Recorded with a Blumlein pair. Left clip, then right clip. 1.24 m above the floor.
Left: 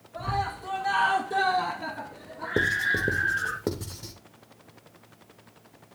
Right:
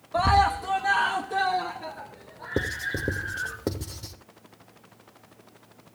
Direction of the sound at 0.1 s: 40° right.